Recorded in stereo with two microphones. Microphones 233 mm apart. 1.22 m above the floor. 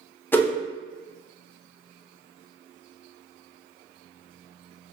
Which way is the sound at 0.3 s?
10° left (ahead or behind).